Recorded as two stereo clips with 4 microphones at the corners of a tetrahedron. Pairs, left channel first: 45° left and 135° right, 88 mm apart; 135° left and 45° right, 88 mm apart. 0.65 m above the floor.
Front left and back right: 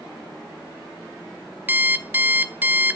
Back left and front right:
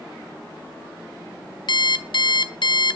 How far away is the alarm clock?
About 1.0 m.